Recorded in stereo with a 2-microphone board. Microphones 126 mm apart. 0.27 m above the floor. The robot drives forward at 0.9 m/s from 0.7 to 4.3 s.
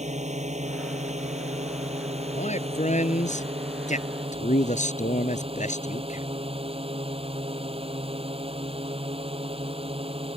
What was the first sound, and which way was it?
A drone, 65° right (ahead or behind).